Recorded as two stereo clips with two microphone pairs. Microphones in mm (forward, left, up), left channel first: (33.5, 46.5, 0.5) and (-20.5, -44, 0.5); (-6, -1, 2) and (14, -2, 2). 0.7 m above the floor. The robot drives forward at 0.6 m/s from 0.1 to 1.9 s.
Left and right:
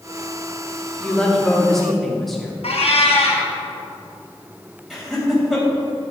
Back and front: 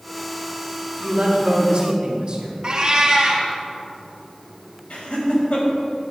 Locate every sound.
1.0 s a woman speaking: 20° right, 1.8 m; by 2.5 s 25° right, 1.4 m
2.6 s a cat meowing: 50° left, 2.5 m
4.9 s laughter: 150° left, 4.5 m